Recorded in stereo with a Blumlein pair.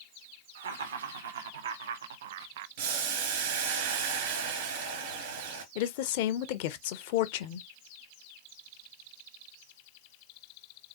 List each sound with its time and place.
0.6 s laughter: 65° right, 1.7 m; by 2.7 s 50° right, 0.5 m
2.8 s boiling: 50° right, 2 m
5.8 s a woman speaking: 50° left, 0.8 m